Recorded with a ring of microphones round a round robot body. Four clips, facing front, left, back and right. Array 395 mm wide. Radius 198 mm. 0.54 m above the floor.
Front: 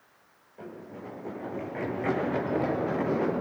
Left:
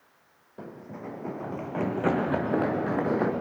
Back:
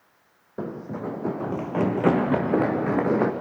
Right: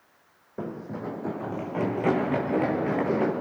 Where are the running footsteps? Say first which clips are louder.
Right 6 dB, back 10 dB; 150° right, 1.5 m; by 3.3 s 165° left, 3.5 m.